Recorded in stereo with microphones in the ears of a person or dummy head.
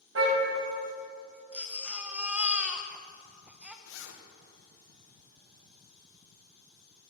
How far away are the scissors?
I don't hear scissors.